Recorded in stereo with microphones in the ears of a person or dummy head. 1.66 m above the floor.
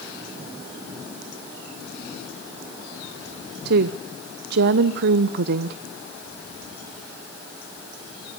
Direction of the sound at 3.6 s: 60° right (ahead or behind).